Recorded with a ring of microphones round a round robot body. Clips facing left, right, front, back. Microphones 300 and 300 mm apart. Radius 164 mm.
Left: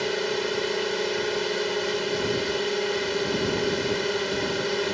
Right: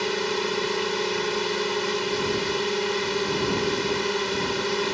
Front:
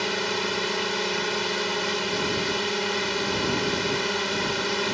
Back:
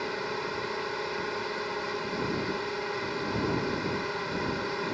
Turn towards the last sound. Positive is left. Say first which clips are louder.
# even, front 5 dB
turn(degrees=-20)